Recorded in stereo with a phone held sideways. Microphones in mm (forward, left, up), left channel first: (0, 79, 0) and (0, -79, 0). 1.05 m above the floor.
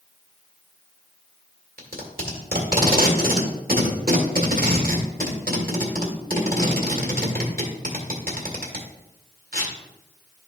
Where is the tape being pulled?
70° right (ahead or behind), 1.7 m.